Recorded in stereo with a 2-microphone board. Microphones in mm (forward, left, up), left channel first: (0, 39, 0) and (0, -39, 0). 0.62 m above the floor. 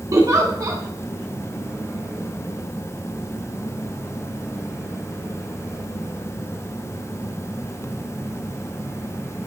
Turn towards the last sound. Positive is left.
turn(degrees=-45)  # may be behind; listen again after turning